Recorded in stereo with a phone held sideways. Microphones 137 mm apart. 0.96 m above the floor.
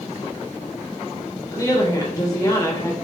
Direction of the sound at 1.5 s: 25° left (ahead or behind).